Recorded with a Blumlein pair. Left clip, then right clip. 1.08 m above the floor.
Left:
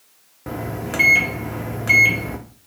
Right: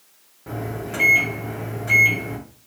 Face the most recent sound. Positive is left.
turn(degrees=60)